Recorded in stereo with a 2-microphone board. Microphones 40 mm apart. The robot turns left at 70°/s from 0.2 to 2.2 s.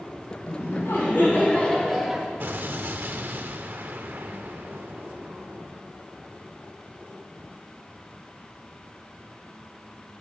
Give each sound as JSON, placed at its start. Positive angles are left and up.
{"t": 0.5, "sound": "laughter", "azimuth_deg": 115, "distance_m": 4.0}
{"t": 2.4, "sound": "an explosion", "side_deg": -55, "distance_m": 0.9}